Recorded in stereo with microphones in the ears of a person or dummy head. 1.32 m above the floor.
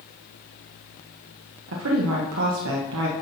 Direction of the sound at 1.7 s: 75° right (ahead or behind).